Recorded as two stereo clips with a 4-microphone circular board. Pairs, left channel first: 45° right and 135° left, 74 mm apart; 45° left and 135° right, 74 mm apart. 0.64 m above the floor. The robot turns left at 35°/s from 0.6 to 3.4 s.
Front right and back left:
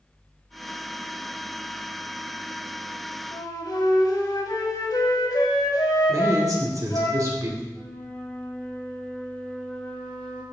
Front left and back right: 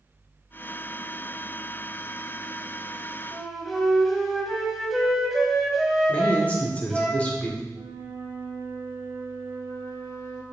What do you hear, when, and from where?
3.3 s a flute: 40° right, 1.5 m; by 7.1 s 45° right, 1.5 m
6.1 s a man speaking: 110° left, 2.5 m
7.7 s a flute: 115° right, 3.5 m